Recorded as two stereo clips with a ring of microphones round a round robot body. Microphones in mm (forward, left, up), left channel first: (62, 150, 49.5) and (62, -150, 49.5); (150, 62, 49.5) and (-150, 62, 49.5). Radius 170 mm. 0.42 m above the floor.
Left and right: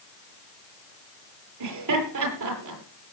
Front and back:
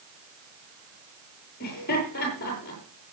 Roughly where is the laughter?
Ahead right.